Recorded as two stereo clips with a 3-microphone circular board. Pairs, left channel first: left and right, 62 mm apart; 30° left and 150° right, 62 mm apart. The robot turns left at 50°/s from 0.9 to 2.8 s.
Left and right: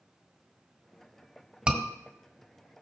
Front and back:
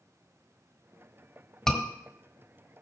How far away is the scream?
About 1.7 m.